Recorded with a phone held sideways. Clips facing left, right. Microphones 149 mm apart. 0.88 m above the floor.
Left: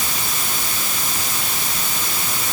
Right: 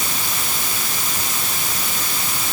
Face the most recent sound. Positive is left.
No sound to turn to.